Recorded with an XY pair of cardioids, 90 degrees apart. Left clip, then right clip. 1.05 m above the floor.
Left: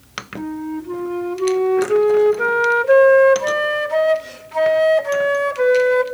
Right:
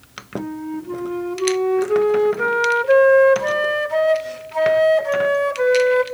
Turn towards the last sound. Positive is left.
turn(degrees=10)